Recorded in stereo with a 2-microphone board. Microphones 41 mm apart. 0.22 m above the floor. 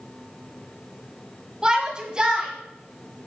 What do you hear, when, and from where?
1.6 s a shout: 20° right (ahead or behind), 1.1 m